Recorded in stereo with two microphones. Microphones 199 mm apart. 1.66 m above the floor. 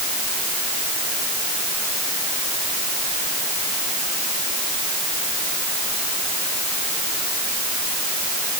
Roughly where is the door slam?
No door slam in this recording.